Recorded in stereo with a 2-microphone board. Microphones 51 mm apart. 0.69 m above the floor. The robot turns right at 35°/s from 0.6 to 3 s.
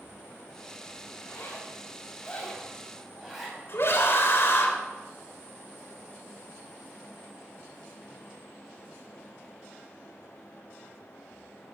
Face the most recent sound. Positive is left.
turn(degrees=55)  # may be behind; listen again after turning